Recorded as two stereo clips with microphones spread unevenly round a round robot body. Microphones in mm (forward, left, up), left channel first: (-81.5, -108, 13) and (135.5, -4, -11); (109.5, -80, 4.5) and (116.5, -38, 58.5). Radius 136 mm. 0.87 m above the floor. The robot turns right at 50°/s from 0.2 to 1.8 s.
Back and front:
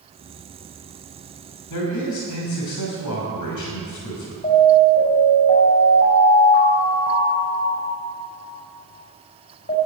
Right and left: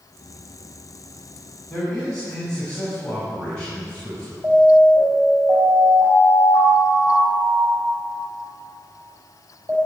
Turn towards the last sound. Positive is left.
turn(degrees=145)